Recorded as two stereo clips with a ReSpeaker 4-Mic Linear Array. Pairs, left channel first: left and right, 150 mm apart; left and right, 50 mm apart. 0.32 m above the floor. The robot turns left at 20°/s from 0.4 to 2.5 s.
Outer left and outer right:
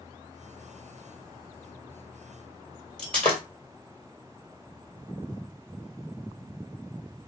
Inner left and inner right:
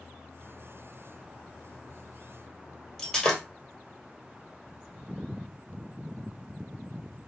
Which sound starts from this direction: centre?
Breaking glass, at 3.0 s.